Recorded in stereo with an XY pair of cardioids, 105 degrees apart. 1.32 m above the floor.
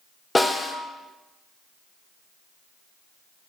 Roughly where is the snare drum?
Ahead.